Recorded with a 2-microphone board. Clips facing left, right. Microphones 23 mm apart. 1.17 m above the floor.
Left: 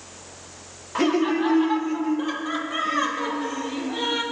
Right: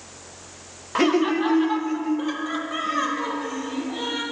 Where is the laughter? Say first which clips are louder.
Right 1 dB; 20° right (ahead or behind), 0.8 m; by 4.2 s 5° left (ahead or behind), 2.5 m.